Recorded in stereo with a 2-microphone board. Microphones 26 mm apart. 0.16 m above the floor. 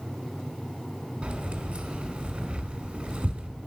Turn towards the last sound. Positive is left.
turn(degrees=-40)  # may be behind; listen again after turning